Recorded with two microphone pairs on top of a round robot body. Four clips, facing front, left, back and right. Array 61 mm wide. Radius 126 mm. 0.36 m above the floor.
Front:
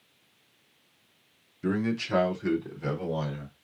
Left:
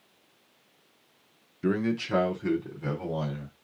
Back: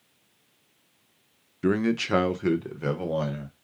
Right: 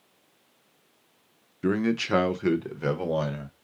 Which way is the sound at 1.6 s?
170° right.